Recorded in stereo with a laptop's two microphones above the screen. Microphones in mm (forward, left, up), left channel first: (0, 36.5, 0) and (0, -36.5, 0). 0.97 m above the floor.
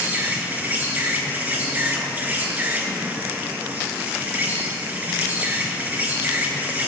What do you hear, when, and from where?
0.0 s an insect: 25° right (ahead or behind), 1.8 m